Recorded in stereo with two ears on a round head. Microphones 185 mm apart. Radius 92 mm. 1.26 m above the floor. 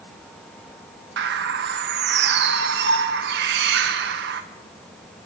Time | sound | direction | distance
1.2 | a bird | 55° right (ahead or behind) | 1.8 m